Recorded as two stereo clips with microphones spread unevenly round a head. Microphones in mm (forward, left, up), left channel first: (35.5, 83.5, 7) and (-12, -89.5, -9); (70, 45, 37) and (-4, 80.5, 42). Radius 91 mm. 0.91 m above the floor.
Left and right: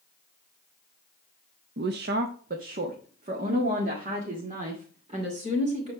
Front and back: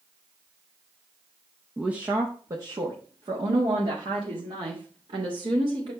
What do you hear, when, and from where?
1.8 s a woman speaking: 120° right, 0.8 m; by 5.9 s 165° right, 3 m